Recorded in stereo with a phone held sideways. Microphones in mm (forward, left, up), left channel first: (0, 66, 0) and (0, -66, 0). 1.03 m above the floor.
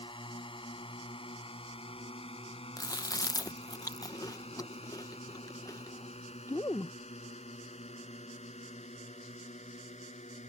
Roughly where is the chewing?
Left.